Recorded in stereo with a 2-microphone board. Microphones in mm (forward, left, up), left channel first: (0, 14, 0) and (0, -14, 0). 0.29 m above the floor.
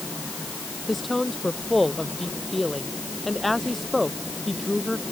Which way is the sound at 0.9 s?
Centre (ahead or behind).